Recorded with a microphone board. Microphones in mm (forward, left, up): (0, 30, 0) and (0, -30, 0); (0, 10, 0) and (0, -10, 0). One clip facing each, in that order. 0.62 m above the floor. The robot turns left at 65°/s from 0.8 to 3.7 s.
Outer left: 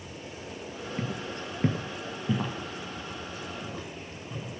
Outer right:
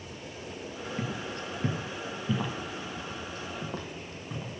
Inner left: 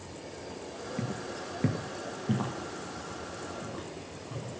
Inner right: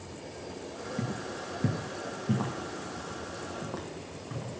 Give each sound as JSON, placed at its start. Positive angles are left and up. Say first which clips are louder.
{"t": 1.0, "sound": "footsteps", "louder": "outer left 1 dB, inner right 1 dB", "side_deg": 10, "distance_m": 0.6}